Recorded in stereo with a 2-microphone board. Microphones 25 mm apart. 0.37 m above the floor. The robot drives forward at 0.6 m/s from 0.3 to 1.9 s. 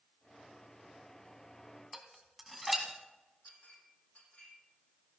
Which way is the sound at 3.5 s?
70° left (ahead or behind).